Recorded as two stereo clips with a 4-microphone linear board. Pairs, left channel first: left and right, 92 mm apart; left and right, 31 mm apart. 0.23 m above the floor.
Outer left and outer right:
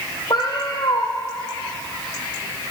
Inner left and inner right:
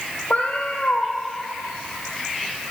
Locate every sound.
0.3 s a cat meowing: 55° left (ahead or behind), 1.4 m